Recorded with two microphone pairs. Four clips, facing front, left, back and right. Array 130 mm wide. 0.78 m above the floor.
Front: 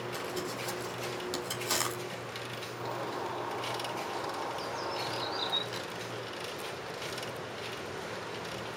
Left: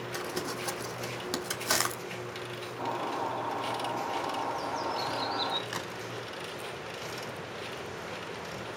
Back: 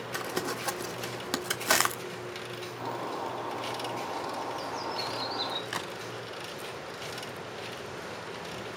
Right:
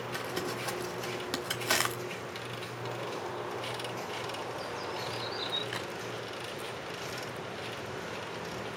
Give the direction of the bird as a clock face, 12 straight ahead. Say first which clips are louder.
Left 6 dB, back 2 dB; 8 o'clock.